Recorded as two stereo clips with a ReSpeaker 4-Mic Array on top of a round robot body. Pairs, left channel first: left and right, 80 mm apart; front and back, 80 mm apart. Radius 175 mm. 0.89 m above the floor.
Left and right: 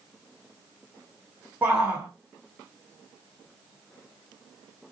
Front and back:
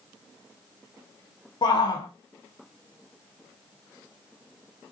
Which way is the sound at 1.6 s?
20° right.